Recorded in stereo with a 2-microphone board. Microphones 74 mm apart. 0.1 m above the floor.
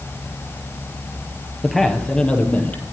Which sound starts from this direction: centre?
A man speaking, at 1.6 s.